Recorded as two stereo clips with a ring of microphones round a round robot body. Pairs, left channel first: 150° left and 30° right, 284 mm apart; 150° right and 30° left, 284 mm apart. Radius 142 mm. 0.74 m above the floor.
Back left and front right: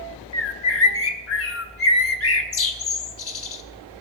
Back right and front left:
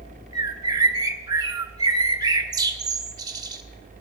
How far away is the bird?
About 1.1 m.